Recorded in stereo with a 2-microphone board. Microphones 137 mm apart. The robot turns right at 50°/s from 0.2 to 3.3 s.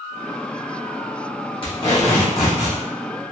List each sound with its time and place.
1.6 s tape being pulled: 140° left, 1.2 m; by 2.8 s 165° right, 1.2 m